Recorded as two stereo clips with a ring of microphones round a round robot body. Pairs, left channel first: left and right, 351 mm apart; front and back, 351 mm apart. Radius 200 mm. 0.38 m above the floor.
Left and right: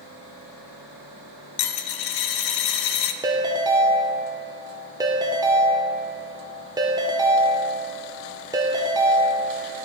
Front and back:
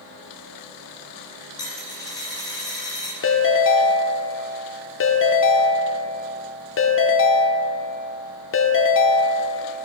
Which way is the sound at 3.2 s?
20° right.